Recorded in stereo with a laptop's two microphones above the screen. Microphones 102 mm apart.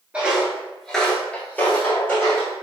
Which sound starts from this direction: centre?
Footsteps, at 0.1 s.